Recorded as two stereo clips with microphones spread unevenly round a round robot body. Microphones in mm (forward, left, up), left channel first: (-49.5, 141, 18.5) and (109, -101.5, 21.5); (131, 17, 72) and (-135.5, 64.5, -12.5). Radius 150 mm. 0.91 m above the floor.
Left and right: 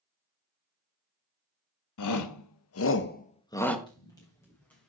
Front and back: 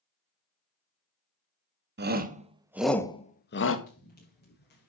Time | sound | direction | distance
2.0 | a shout | 135° left | 2.0 m
3.9 | running footsteps | 50° left | 6 m